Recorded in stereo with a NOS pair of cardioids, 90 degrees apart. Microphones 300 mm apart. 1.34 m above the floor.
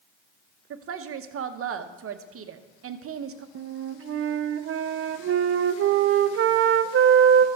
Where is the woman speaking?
50° right, 1.0 m.